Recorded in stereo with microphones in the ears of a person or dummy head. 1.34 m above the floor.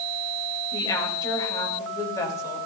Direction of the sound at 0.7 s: 20° left (ahead or behind).